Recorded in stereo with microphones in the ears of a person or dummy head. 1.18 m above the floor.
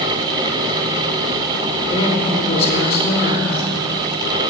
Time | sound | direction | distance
1.8 | a woman speaking | 25° left (ahead or behind) | 3 m